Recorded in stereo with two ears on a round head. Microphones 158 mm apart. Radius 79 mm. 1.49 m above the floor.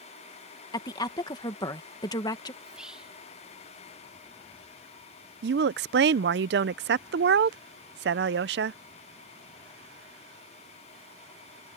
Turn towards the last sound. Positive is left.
turn(degrees=-70)  # may be behind; listen again after turning